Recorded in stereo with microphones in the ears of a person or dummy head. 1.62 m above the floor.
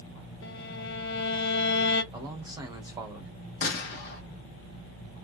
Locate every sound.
0.4 s a violin: 70° left (ahead or behind), 0.6 m
2.1 s a man speaking: 10° right (ahead or behind), 1.0 m
3.6 s a gunshot: 60° left (ahead or behind), 1.0 m